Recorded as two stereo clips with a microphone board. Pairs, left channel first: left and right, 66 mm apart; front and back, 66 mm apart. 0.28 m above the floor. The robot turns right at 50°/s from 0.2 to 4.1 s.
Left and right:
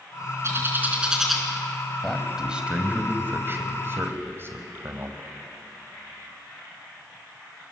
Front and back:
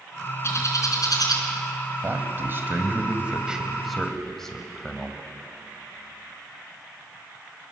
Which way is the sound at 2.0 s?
175° left.